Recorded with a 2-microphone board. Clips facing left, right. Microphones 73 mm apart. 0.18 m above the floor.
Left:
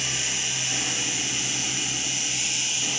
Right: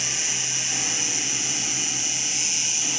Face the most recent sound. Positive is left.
turn(degrees=-20)  # may be behind; listen again after turning